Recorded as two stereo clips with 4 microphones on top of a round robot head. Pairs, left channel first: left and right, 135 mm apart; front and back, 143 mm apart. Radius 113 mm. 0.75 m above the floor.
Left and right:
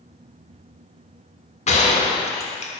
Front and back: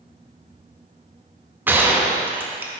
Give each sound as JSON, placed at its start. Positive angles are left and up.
{"t": 1.7, "sound": "a gunshot", "azimuth_deg": 105, "distance_m": 1.0}